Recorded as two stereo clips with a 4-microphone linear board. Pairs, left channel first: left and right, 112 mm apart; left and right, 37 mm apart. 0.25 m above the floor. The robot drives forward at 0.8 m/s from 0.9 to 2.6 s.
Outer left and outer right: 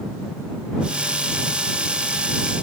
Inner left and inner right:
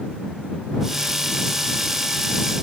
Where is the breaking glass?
No breaking glass in this recording.